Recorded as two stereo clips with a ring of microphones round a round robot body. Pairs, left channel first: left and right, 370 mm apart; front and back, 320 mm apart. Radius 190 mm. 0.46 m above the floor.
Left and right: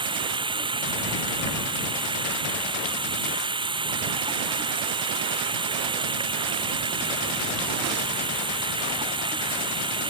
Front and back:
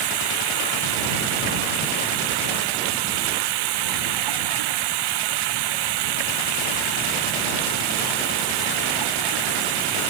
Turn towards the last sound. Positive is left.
turn(degrees=-170)